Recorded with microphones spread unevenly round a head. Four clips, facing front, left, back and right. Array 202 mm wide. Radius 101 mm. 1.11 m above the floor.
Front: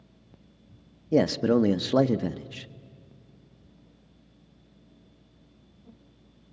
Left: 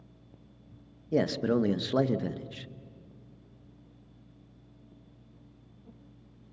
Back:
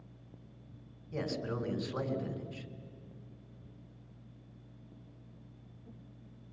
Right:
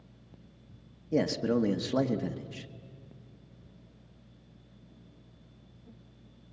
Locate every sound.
1.1 s a man speaking: 10° left, 0.9 m